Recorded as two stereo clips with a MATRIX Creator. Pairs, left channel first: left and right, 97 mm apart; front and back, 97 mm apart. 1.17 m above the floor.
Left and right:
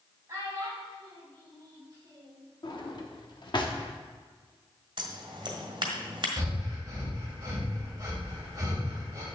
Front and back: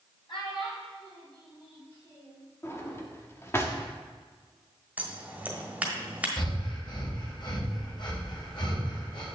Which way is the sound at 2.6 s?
60° left.